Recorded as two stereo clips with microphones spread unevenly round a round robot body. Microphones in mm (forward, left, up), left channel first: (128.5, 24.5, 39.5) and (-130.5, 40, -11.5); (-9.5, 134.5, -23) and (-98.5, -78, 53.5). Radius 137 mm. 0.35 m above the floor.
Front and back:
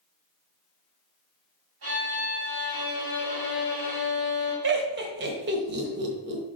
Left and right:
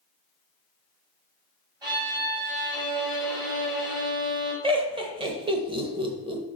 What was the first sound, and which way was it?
A violin, 165° left.